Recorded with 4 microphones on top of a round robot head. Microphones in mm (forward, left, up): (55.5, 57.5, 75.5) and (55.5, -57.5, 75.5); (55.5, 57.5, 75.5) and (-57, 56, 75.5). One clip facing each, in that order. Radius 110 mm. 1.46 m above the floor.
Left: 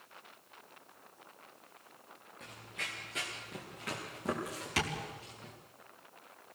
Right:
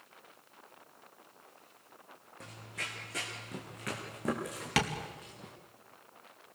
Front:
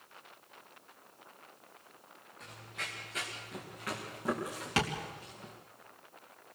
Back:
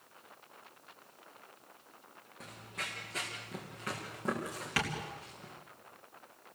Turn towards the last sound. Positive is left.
turn(degrees=-70)